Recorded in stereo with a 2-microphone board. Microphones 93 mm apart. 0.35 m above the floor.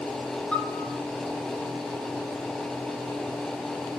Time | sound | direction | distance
0.5 | a piano | 10° left (ahead or behind) | 2 m